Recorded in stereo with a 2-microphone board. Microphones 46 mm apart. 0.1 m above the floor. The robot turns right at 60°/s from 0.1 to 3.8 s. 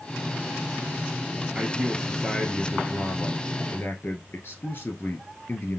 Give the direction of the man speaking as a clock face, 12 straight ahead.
1 o'clock.